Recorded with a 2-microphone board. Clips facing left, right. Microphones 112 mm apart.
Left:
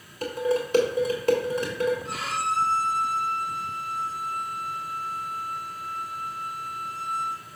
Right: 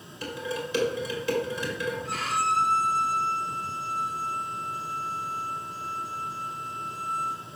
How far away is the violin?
About 3.5 m.